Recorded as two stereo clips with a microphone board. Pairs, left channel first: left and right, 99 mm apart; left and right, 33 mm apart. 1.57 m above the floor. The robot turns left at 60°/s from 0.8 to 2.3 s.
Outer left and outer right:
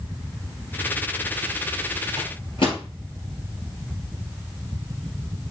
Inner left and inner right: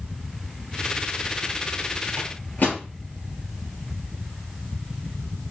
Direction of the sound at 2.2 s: 65° left (ahead or behind).